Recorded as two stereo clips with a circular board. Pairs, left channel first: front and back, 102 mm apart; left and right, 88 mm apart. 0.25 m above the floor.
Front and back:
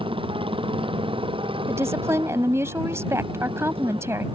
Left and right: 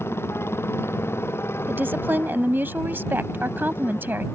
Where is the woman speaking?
140° right.